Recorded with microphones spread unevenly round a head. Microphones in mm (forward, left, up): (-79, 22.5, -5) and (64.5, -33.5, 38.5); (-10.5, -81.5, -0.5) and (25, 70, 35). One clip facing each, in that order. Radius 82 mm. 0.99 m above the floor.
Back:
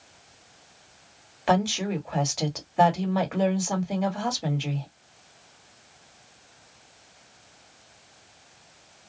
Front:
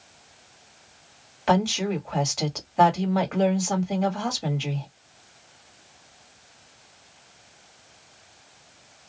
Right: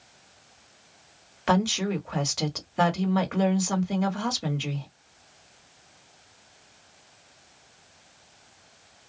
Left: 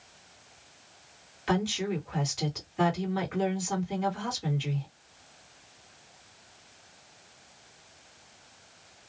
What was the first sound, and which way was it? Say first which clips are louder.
A woman speaking: front 1 dB, right 4 dB; 115° right.